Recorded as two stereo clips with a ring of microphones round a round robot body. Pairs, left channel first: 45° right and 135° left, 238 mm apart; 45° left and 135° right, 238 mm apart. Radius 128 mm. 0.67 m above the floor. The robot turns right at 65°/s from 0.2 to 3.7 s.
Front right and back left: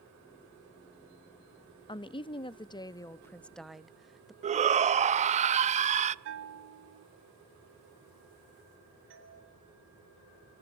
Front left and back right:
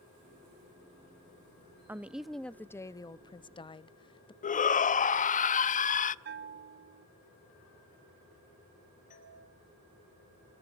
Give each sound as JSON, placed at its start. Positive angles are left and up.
{"t": 1.9, "sound": "a woman speaking", "azimuth_deg": -70, "distance_m": 0.6}
{"t": 4.4, "sound": "a shout", "azimuth_deg": 85, "distance_m": 0.6}
{"t": 6.2, "sound": "a bell", "azimuth_deg": 175, "distance_m": 0.9}
{"t": 9.1, "sound": "a doorbell", "azimuth_deg": 100, "distance_m": 3.5}